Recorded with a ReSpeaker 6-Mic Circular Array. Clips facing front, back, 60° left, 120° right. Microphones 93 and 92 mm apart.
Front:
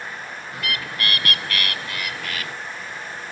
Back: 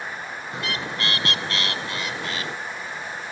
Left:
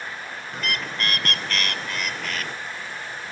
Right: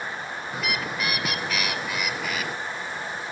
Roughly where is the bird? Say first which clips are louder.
Even, even; behind.